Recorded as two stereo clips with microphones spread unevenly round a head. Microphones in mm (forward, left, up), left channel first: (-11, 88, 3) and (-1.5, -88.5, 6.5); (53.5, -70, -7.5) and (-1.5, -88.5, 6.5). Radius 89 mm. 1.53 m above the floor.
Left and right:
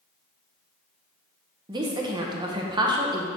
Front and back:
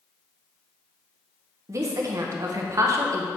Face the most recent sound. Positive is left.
turn(degrees=-155)